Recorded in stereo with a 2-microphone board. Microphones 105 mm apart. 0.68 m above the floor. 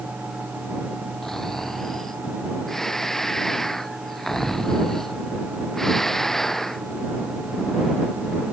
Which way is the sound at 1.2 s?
5° left (ahead or behind).